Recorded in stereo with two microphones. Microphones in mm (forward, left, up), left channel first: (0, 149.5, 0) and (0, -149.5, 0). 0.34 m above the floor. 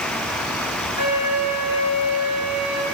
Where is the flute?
65° right (ahead or behind), 3.5 m.